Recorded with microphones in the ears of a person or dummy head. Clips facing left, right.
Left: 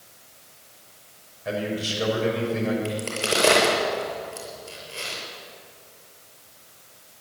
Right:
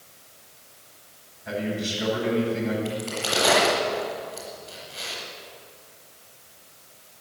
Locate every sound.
1.4 s a man speaking: 85° left, 6 m
2.9 s a crack: 65° left (ahead or behind), 6.5 m